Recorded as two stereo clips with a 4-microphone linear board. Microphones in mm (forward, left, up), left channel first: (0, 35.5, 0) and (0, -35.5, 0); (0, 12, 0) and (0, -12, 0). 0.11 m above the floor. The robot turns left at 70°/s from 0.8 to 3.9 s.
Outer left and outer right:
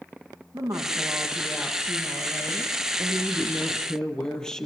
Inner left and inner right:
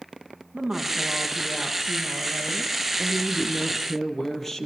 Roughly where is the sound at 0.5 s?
Behind right.